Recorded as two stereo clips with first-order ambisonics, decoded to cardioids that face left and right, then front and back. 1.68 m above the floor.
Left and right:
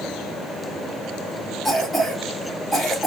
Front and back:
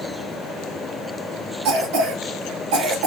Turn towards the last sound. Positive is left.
turn(degrees=180)